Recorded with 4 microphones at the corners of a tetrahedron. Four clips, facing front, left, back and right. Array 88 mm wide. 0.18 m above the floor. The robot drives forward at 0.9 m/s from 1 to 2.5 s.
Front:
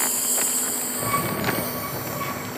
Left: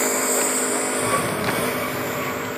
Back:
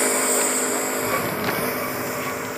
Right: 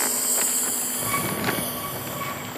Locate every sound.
0.0 s a lawn mower: 145° left; by 2.6 s 125° left